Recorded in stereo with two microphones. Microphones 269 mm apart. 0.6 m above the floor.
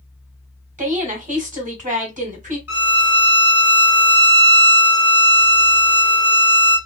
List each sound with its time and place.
0.8 s a woman speaking: 30° right (ahead or behind), 1.5 m
2.7 s a violin: 60° left (ahead or behind), 1.5 m